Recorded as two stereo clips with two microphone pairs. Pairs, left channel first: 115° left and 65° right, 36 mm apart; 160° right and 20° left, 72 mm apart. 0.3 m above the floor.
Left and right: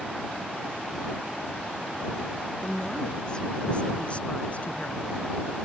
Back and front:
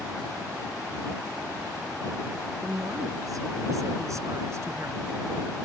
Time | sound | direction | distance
2.6 | a woman speaking | 45° left | ?